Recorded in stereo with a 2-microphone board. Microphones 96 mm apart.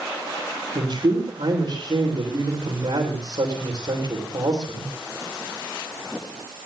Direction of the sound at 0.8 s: 70° right (ahead or behind).